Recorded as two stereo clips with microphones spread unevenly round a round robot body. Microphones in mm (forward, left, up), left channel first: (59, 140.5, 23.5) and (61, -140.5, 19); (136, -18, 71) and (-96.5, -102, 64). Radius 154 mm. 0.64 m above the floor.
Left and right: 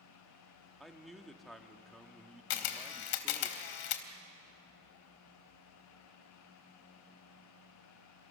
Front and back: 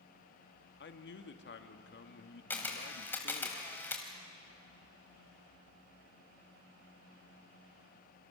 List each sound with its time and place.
0.8 s a man speaking: straight ahead, 1.6 m
2.5 s a camera shutter: 105° left, 1.6 m